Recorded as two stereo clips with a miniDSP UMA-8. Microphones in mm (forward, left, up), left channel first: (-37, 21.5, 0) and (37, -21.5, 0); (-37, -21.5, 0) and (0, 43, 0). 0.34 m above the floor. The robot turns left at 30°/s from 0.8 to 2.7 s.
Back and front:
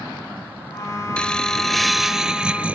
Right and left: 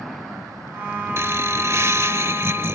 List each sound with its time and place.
1.2 s laughter: 80° left; by 2.8 s 35° left